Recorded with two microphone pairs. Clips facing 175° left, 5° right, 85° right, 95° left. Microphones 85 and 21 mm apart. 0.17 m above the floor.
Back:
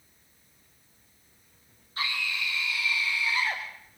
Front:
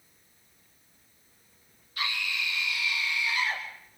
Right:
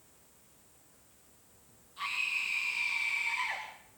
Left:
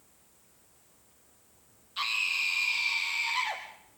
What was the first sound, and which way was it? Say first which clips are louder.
A scream: back 1 dB, left 4 dB; 120° left.